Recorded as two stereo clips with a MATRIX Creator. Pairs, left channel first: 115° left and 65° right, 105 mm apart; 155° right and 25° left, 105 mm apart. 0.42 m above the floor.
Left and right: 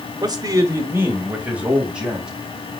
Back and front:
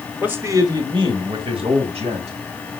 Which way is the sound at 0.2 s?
50° right.